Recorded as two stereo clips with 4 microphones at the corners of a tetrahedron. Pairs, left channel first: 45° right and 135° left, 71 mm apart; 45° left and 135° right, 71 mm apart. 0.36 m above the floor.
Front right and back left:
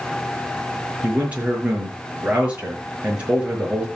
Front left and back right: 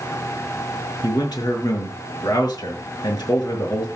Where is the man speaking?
65° left, 6.5 m.